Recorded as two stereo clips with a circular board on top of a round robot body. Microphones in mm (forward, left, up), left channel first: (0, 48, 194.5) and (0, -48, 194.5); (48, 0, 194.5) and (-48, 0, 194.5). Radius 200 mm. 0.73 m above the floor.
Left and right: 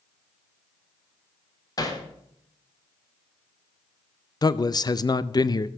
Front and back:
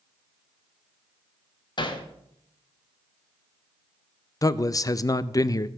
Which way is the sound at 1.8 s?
40° left.